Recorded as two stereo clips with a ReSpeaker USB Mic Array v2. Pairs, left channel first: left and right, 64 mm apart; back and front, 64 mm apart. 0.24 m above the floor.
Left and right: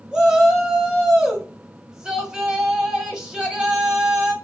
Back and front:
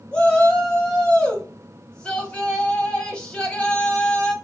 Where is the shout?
140° right, 1.1 m.